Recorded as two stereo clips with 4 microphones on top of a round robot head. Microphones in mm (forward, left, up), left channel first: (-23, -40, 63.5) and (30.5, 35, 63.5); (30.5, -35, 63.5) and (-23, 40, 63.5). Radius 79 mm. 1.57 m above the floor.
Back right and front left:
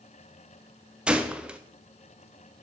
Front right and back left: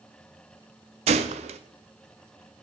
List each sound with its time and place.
1.1 s a gunshot: 135° left, 0.6 m